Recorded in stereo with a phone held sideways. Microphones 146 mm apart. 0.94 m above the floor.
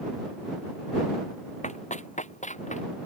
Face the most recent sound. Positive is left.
turn(degrees=65)  # may be behind; listen again after turning